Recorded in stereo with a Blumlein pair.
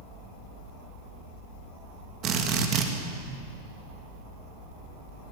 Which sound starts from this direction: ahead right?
A drill, at 2.2 s.